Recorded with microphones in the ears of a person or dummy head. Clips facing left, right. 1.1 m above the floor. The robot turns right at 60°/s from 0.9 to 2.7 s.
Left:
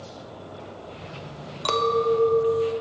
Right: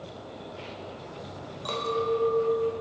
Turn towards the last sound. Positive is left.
turn(degrees=170)